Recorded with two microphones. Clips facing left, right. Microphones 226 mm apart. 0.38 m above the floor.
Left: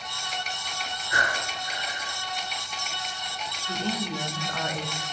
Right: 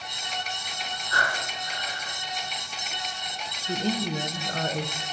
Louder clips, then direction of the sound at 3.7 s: Right 3 dB; 35° right (ahead or behind).